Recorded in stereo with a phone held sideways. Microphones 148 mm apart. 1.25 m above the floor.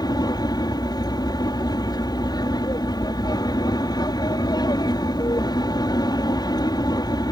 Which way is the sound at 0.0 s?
25° left (ahead or behind).